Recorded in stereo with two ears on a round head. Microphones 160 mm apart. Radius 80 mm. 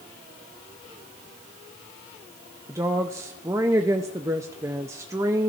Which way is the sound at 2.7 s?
15° right (ahead or behind).